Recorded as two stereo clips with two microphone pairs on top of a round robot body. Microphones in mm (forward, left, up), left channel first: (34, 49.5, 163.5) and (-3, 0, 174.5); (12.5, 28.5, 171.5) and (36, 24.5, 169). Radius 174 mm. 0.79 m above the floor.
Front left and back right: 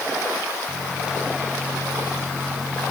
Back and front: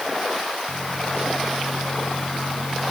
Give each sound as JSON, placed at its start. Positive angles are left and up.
{"t": 0.7, "sound": "a microwave", "azimuth_deg": 155}